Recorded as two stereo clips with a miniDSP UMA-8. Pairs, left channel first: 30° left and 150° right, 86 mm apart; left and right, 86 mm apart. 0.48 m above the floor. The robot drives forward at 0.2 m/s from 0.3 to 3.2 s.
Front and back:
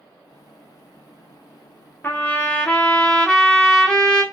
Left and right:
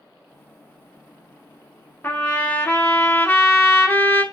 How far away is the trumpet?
About 0.7 m.